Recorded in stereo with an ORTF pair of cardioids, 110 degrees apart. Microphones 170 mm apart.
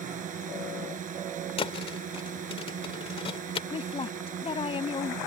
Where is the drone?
50° right.